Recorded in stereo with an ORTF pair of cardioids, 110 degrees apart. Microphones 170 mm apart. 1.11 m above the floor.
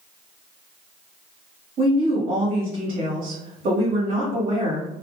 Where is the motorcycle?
No motorcycle in this recording.